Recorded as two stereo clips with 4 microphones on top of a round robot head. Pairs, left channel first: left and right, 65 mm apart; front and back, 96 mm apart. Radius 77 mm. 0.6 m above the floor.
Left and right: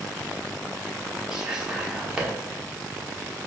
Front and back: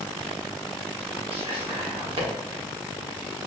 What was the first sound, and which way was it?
Whispering, 170° right.